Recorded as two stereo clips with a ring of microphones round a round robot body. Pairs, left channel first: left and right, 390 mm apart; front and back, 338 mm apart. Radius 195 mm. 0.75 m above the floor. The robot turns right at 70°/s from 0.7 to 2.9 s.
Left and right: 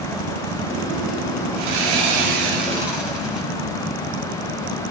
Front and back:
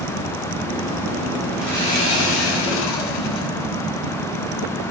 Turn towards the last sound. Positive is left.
turn(degrees=0)